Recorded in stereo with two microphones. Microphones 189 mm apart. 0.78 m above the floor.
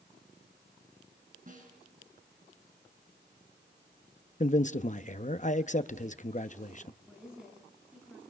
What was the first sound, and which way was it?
A snare drum, 45° right (ahead or behind).